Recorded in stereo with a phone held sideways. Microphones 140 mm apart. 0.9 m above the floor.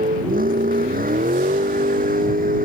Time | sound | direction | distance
0.0 | a vehicle | 90° right | ?